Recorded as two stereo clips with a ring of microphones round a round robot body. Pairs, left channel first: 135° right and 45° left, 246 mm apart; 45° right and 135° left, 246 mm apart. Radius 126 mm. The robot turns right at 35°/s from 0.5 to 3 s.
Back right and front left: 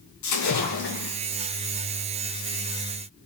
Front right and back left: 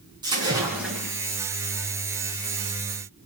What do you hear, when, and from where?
0.2 s a splash: 150° right, 4 m; by 1.2 s 130° right, 4 m